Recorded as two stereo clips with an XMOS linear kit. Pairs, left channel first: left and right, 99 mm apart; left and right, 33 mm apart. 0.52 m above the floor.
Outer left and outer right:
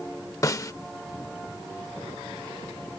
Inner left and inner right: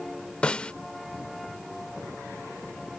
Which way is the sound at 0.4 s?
35° left (ahead or behind).